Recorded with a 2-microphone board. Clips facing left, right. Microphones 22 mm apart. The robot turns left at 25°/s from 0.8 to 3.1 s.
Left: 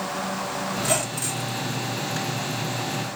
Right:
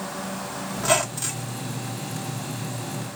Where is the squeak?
40° right (ahead or behind), 0.9 m; by 1.6 s 25° right (ahead or behind), 0.9 m.